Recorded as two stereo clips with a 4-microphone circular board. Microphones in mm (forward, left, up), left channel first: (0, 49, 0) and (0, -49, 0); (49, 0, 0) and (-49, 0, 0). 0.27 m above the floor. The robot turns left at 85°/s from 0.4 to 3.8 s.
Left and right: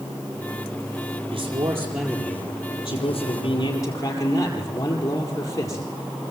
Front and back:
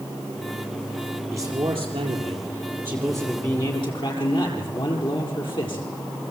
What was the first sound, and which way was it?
A man speaking, 115° right.